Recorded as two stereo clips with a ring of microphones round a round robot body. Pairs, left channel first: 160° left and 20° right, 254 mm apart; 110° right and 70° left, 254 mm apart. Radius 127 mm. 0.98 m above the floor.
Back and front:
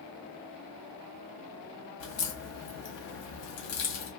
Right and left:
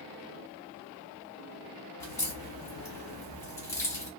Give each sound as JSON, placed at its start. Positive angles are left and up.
{"t": 2.0, "sound": "a crack", "azimuth_deg": 170, "distance_m": 1.4}